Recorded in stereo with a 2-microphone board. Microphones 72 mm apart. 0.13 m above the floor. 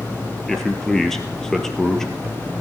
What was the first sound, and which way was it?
A man speaking, 5° left (ahead or behind).